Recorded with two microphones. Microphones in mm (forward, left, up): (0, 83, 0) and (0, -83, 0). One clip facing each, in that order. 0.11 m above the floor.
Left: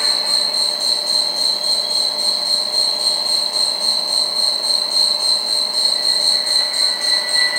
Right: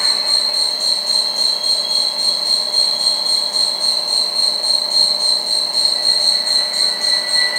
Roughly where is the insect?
Left.